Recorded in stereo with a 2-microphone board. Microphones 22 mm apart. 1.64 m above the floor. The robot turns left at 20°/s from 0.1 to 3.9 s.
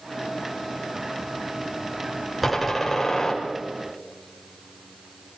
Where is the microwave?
I don't hear a microwave.